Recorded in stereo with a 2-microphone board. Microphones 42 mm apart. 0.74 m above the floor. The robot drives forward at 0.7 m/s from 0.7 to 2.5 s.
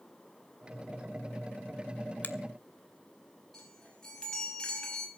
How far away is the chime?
About 5 m.